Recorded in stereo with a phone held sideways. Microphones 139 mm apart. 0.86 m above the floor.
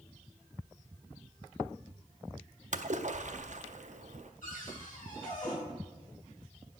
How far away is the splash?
About 0.6 m.